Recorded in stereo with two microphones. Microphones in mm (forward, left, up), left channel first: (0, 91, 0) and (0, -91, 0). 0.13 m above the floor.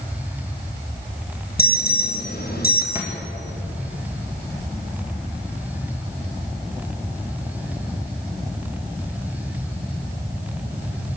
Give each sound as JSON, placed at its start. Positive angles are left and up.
{"t": 1.6, "sound": "an alarm", "side_deg": 55, "distance_m": 4.5}
{"t": 3.0, "sound": "a thud", "side_deg": -15, "distance_m": 5.0}